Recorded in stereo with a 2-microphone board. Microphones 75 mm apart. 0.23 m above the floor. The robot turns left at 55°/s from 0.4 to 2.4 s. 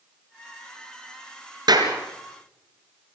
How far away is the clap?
About 3.5 m.